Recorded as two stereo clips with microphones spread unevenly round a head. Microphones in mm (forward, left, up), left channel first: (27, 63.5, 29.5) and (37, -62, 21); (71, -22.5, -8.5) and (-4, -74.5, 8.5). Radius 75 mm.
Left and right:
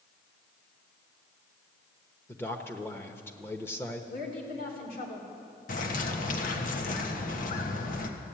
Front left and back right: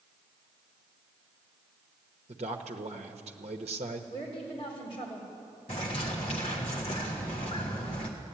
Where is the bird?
80° left, 1.4 m.